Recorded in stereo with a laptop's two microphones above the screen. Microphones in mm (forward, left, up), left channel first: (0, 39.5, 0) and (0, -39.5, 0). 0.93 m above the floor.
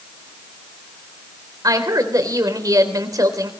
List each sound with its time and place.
1.6 s a woman speaking: 50° right (ahead or behind), 3.5 m